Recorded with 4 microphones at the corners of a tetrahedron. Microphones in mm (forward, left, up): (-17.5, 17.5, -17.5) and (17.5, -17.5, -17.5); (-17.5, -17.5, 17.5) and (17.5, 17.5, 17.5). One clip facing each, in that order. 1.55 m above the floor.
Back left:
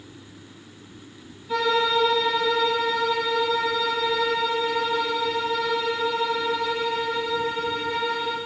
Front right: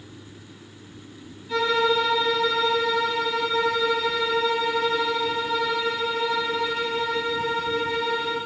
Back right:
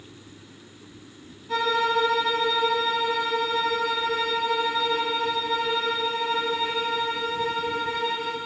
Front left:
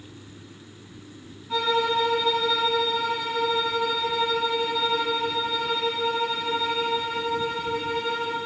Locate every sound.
1.5 s a violin: 150° right, 3.5 m